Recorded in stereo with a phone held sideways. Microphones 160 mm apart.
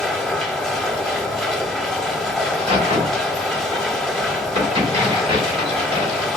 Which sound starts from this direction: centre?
A machine running, at 0.0 s.